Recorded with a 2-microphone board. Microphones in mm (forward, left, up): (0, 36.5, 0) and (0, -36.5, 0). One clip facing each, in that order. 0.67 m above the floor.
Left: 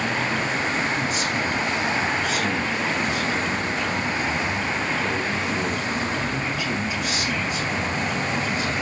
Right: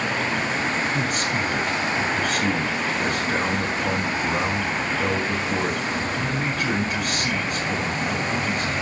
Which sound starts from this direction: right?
A man speaking, at 0.9 s.